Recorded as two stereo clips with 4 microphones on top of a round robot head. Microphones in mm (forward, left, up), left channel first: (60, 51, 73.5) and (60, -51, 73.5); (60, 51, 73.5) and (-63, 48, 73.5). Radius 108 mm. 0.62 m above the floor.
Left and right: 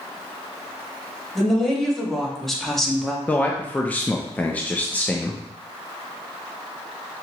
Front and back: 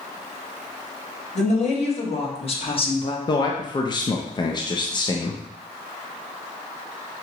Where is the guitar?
No guitar in this recording.